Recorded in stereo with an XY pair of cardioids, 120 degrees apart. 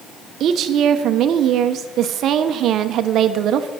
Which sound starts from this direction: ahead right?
A woman speaking, at 0.4 s.